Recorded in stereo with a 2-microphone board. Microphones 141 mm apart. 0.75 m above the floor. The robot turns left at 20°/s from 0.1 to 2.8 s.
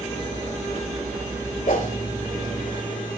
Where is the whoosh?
75° left (ahead or behind), 3 m; by 2.0 s 70° left (ahead or behind), 3 m.